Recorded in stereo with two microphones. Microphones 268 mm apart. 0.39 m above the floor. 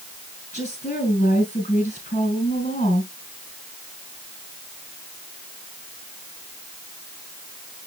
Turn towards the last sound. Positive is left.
turn(degrees=25)  # may be behind; listen again after turning